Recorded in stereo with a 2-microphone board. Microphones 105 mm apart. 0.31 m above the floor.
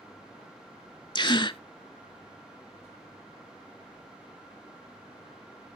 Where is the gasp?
50° left (ahead or behind), 0.5 m.